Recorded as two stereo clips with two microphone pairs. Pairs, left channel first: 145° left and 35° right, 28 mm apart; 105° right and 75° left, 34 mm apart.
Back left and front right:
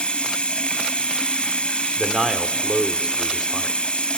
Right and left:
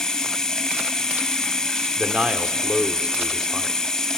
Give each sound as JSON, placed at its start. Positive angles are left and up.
{"t": 0.0, "sound": "running water", "azimuth_deg": -175, "distance_m": 1.7}
{"t": 2.0, "sound": "a man speaking", "azimuth_deg": 35, "distance_m": 1.7}